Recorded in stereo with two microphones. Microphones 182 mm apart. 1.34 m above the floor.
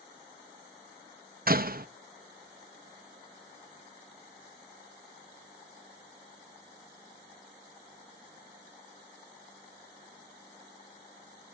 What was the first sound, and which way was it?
A door slam, 55° right (ahead or behind).